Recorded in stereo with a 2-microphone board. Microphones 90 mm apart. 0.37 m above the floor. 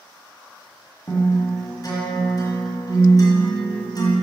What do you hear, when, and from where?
1.1 s a guitar: 45° left (ahead or behind), 1.7 m